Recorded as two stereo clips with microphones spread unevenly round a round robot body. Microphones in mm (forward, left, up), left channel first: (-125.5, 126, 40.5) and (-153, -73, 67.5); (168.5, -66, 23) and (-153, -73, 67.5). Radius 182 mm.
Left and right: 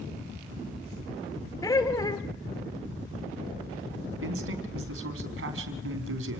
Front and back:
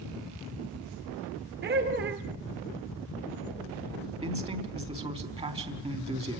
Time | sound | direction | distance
1.6 | laughter | 130° left | 1.4 m
4.2 | a man speaking | 105° right | 4 m